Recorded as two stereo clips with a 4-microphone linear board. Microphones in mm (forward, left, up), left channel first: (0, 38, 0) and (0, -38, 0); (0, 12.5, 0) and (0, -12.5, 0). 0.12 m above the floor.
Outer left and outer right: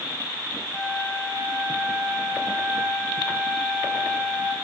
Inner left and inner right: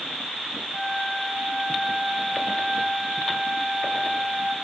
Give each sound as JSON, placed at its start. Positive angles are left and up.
{"t": 0.7, "sound": "a flute", "side_deg": 30, "distance_m": 6.5}